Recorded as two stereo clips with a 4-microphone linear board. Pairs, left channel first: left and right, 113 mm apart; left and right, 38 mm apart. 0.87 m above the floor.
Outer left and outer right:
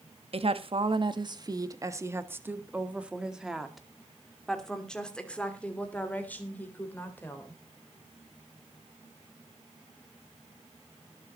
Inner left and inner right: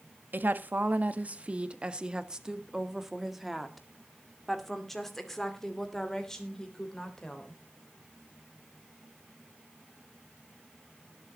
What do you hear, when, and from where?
0.3 s a woman speaking: 55° right (ahead or behind), 1.4 m; by 7.6 s 15° left (ahead or behind), 4 m